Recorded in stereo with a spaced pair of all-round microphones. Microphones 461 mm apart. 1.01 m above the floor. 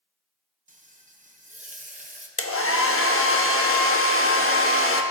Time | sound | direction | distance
0.7 | frying | 15° right (ahead or behind) | 0.7 m
2.4 | a hair dryer | 30° left (ahead or behind) | 0.7 m